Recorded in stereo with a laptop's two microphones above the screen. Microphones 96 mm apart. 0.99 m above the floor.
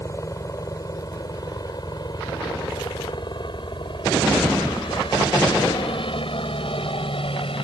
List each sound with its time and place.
0.0 s a helicopter: 35° left (ahead or behind); by 7.6 s 70° left (ahead or behind)